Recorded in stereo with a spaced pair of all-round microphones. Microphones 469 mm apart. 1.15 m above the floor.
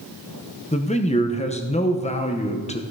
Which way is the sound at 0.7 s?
15° left (ahead or behind).